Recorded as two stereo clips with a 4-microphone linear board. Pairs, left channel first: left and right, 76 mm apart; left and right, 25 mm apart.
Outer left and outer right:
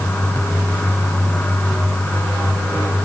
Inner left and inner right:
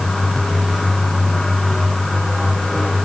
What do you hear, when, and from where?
Only background noise.